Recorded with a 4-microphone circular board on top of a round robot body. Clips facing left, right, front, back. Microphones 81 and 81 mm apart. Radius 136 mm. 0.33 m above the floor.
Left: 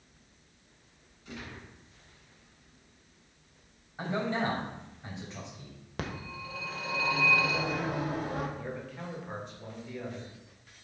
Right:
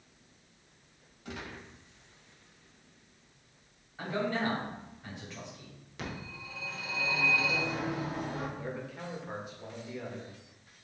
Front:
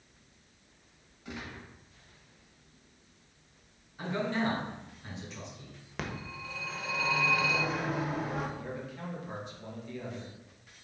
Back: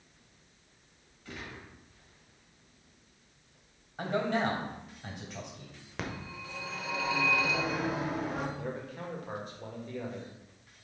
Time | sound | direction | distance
1.2 | a gunshot | 75° right | 1.8 m
4.0 | a man speaking | 155° left | 2.5 m
6.0 | a phone ringing | 90° left | 1.4 m
8.6 | a man speaking | 170° right | 2 m